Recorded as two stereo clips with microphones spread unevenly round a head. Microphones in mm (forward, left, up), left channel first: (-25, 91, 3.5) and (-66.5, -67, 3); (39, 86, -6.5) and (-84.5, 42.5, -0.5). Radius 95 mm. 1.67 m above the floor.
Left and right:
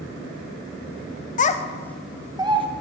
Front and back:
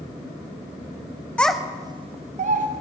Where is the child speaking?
100° left, 0.7 m; by 2.7 s 160° right, 1.1 m.